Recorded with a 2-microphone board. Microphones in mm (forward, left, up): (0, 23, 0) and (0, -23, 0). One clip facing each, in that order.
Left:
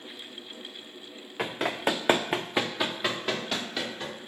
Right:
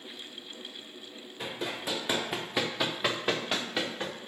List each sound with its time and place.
1.4 s running footsteps: 80° left, 0.7 m; by 4.2 s 25° right (ahead or behind), 1.3 m